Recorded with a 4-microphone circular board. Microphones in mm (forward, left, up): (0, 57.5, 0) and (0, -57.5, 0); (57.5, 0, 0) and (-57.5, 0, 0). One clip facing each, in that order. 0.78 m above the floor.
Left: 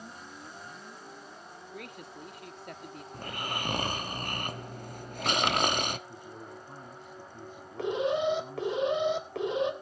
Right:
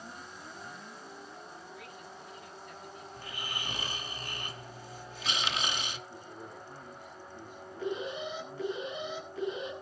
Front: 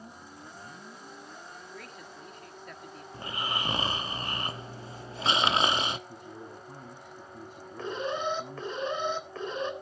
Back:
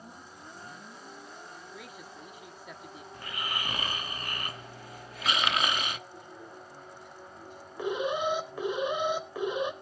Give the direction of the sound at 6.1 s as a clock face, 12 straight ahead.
11 o'clock.